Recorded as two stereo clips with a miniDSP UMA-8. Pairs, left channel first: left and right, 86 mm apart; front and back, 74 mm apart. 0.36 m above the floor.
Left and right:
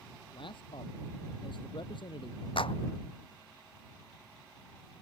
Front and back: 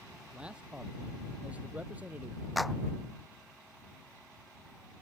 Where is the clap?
90° left.